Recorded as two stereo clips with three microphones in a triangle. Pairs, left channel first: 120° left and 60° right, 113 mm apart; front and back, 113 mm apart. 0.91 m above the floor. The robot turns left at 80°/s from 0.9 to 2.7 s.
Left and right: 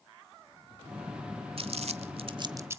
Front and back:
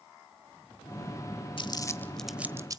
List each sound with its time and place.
1.6 s crumpling: 35° right, 1.2 m; by 2.8 s 125° right, 1.2 m